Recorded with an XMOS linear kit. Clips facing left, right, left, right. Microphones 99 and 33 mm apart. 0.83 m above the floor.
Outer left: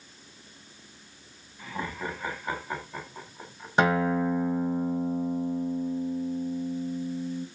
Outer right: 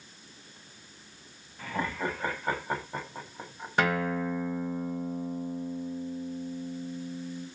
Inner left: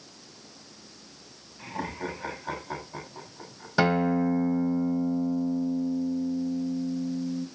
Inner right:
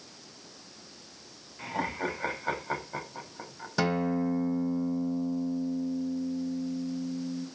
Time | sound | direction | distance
1.6 | laughter | 55° right (ahead or behind) | 6 m
3.8 | a guitar | 20° left (ahead or behind) | 1.1 m